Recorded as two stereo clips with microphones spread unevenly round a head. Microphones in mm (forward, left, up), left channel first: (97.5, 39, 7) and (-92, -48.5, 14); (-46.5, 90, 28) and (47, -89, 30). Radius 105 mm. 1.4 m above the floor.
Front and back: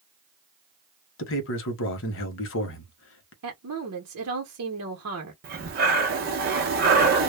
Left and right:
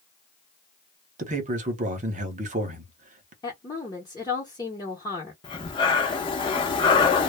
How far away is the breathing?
About 0.7 m.